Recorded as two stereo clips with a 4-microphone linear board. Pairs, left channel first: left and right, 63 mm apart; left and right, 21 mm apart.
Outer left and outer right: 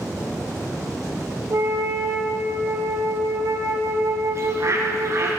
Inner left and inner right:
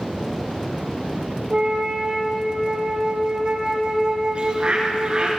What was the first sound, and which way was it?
A flute, 55° right (ahead or behind).